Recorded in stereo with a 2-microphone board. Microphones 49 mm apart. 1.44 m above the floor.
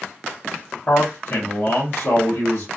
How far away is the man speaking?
About 1.1 m.